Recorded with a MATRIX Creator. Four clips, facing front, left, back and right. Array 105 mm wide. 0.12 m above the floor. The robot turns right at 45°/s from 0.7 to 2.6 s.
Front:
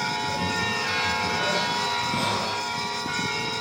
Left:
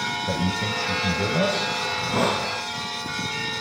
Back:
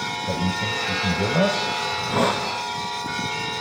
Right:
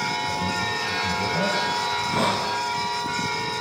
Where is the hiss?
120° left, 5.5 m; by 2.5 s 145° left, 5.5 m.